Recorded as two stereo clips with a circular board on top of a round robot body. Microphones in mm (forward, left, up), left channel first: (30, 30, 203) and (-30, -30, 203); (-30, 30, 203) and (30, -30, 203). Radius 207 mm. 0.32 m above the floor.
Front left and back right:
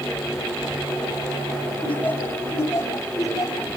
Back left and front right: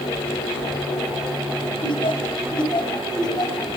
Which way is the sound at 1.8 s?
120° left.